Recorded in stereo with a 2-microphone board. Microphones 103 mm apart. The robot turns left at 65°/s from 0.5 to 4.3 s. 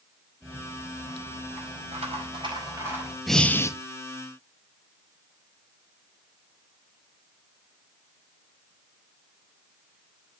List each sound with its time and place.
0.4 s a rattle: straight ahead, 5 m; by 3.2 s 175° right, 5 m
3.3 s breathing: straight behind, 0.7 m; by 3.7 s 150° left, 0.7 m